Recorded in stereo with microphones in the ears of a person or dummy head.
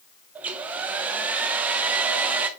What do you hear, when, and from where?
0.3 s a hair dryer: 15° right (ahead or behind), 0.6 m